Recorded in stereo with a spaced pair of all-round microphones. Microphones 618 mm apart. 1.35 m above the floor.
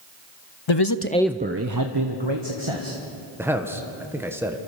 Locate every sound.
0.7 s a man speaking: 50° left (ahead or behind), 0.6 m; by 3.0 s 50° right (ahead or behind), 1.9 m
3.4 s a man speaking: 5° right (ahead or behind), 1.2 m